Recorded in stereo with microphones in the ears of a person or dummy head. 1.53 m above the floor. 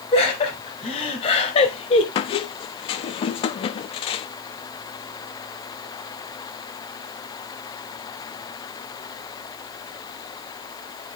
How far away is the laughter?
About 2.5 m.